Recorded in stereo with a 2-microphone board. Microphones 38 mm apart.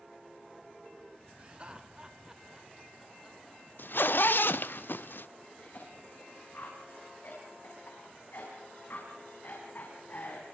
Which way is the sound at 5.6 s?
60° left (ahead or behind).